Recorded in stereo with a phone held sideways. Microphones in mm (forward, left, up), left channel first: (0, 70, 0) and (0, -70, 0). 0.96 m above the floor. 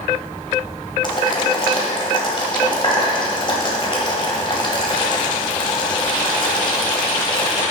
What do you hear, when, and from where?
1.0 s boiling: 35° left (ahead or behind), 1.6 m